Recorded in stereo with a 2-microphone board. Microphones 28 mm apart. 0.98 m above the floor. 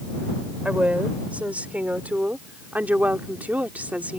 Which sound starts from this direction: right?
A woman speaking, at 0.7 s.